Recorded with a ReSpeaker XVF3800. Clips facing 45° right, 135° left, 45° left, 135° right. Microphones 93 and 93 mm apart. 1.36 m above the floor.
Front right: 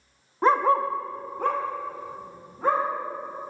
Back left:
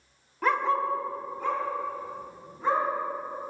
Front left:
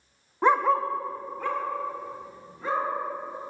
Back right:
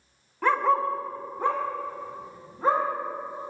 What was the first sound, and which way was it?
A dog barking, 5° right.